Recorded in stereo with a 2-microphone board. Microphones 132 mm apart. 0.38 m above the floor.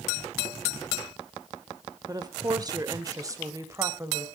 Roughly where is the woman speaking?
Right.